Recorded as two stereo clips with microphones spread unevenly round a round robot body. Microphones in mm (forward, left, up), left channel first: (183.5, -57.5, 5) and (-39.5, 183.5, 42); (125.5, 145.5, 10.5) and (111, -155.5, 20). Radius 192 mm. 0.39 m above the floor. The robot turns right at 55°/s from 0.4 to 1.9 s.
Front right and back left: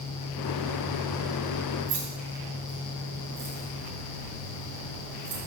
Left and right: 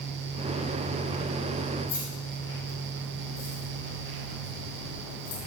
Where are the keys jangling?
120° left, 2.5 m; by 5.4 s 125° left, 2.5 m.